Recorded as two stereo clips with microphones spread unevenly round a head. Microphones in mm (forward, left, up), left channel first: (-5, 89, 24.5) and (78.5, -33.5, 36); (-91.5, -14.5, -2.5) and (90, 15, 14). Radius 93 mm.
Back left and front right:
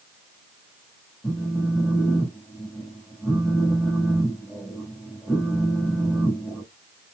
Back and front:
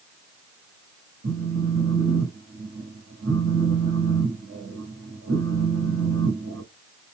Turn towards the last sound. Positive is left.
turn(degrees=40)